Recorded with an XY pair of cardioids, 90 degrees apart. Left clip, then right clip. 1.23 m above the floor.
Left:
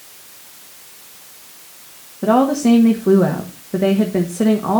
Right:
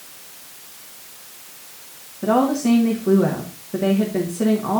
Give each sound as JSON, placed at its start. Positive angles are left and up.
{"t": 2.2, "sound": "a woman speaking", "azimuth_deg": 45, "distance_m": 1.6}